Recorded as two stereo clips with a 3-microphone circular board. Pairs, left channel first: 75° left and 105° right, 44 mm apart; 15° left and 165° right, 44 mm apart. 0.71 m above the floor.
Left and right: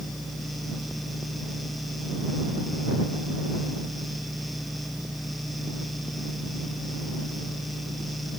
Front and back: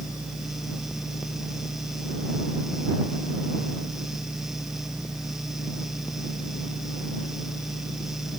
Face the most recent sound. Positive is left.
No sound to turn to.